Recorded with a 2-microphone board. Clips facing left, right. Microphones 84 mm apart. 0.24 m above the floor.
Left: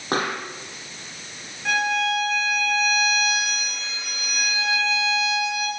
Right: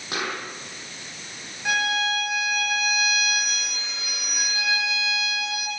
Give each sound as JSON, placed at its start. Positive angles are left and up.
{"t": 0.1, "sound": "a pop", "side_deg": 45, "distance_m": 8.5}
{"t": 1.6, "sound": "a violin", "side_deg": -10, "distance_m": 9.5}